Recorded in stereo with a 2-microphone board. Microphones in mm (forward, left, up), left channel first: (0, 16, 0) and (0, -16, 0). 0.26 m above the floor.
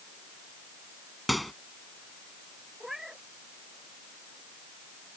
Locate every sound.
1.3 s a microwave: centre (ahead or behind)
2.8 s a cat meowing: 15° right (ahead or behind)